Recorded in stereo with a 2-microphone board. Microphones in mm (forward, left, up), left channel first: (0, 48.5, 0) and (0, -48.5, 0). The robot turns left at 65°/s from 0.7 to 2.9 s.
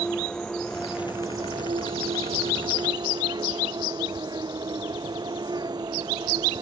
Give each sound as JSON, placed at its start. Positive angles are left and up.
{"t": 0.0, "sound": "an insect", "azimuth_deg": 10}